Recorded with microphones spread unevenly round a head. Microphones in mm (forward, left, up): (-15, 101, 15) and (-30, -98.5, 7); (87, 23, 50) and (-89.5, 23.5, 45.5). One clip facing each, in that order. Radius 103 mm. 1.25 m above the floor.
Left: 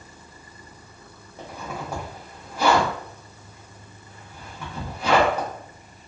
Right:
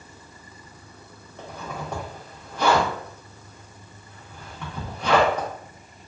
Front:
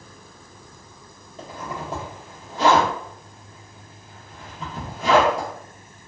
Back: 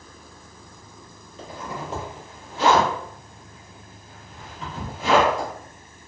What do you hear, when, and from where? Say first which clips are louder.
1.4 s a zipper: left 1 dB, front 1 dB; 10° left, 0.8 m